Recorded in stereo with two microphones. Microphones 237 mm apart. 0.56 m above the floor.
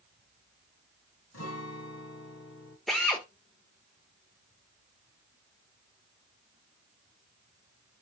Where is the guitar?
85° left, 0.9 m.